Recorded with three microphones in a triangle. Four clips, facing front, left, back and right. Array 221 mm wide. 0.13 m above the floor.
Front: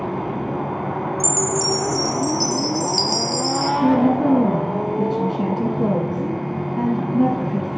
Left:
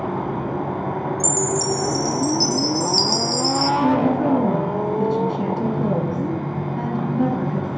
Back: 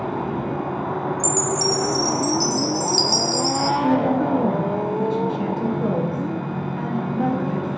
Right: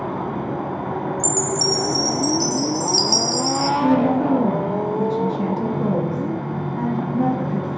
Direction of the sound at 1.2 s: 40° left.